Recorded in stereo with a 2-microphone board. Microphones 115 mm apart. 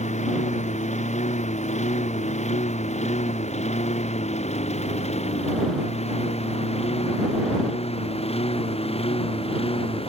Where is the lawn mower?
85° left; by 10.1 s 55° left (ahead or behind).